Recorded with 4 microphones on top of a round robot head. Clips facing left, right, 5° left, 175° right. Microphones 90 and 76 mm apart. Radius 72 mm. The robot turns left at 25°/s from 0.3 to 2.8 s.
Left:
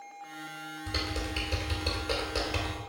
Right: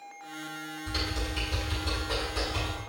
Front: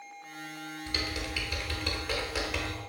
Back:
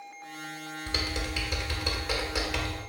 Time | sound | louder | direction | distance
0.9 | typing on a keyboard | even, back 2 dB | 135° left | 1.7 m